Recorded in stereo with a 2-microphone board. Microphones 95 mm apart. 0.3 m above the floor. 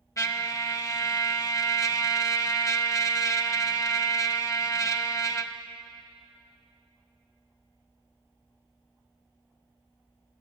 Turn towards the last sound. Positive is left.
turn(degrees=40)  # may be behind; listen again after turning